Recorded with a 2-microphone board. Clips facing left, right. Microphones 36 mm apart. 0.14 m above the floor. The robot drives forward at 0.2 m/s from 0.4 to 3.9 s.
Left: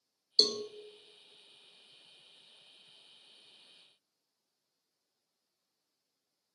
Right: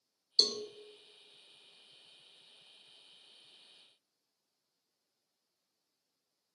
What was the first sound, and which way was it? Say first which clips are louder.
A cowbell: left 2 dB; 30° left (ahead or behind).